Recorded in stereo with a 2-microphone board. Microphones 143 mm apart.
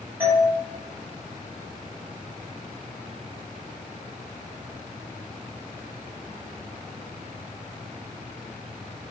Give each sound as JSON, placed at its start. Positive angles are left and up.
{"t": 0.2, "sound": "a doorbell", "side_deg": -15, "distance_m": 1.0}